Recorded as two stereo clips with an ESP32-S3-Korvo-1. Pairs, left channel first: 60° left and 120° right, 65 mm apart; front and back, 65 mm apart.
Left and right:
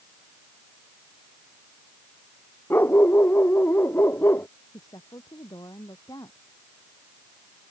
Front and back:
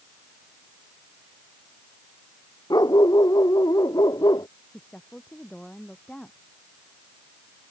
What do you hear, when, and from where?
2.7 s a dog barking: 5° left
4.7 s a woman speaking: 75° left